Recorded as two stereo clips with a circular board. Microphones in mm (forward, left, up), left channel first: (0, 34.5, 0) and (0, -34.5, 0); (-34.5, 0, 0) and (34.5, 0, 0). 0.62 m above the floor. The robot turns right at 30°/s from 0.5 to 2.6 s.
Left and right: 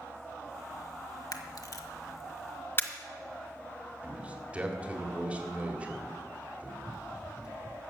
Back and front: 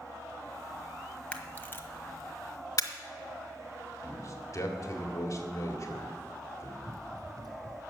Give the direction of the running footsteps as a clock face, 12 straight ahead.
1 o'clock.